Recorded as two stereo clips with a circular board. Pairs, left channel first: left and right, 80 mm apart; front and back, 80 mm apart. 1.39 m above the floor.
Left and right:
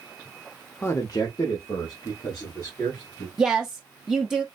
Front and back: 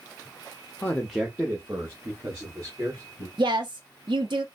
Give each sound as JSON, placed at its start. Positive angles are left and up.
{"t": 0.8, "sound": "a man speaking", "azimuth_deg": 45, "distance_m": 0.6}
{"t": 3.4, "sound": "a woman speaking", "azimuth_deg": -175, "distance_m": 0.5}